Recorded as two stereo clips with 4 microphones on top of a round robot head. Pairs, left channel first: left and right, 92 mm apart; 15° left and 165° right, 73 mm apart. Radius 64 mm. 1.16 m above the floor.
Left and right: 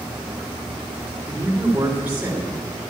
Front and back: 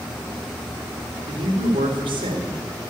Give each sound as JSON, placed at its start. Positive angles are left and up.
{"t": 1.3, "sound": "a man speaking", "azimuth_deg": -165, "distance_m": 3.5}